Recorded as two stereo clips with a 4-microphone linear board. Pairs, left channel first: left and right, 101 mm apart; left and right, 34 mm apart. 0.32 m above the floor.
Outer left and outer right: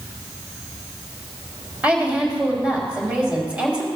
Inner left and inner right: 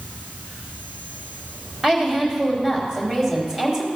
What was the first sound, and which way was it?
A woman speaking, 15° right (ahead or behind).